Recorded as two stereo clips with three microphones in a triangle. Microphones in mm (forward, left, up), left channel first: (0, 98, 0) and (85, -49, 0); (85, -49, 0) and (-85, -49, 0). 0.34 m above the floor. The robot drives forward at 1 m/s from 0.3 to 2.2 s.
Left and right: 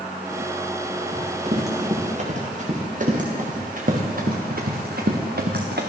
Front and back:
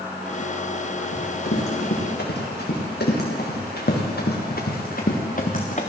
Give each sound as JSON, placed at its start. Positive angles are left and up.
{"t": 1.1, "sound": "running footsteps", "azimuth_deg": -10, "distance_m": 6.5}